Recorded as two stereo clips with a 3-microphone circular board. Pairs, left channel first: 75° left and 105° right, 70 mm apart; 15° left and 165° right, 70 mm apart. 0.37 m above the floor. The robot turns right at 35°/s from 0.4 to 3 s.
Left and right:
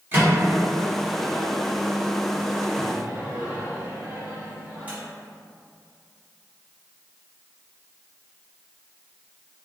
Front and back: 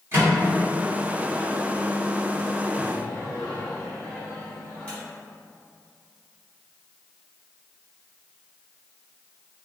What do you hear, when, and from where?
0.1 s a microwave: 145° right, 1.3 m; by 5.0 s 55° right, 1.3 m